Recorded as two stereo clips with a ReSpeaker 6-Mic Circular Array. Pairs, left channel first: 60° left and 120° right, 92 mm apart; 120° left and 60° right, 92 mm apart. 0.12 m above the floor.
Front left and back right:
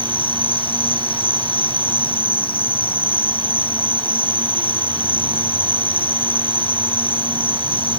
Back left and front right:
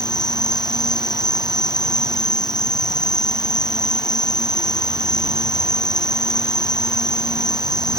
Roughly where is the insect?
Left.